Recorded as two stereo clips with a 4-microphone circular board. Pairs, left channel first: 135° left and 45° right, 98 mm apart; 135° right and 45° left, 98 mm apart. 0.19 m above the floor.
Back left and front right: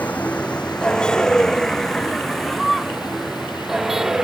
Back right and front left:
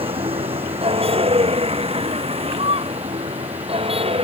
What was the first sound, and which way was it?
A vehicle, 60° left.